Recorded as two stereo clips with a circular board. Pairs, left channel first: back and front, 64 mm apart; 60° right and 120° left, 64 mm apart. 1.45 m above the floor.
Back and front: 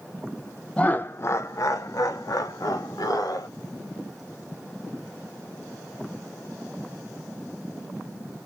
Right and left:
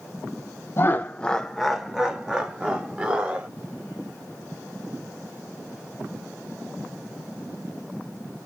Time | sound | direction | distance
0.8 | laughter | 110° right | 0.5 m